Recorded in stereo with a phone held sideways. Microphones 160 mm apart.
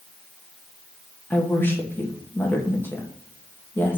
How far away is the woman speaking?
About 1.6 m.